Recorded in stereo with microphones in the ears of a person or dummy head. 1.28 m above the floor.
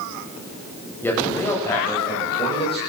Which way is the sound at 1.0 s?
Centre (ahead or behind).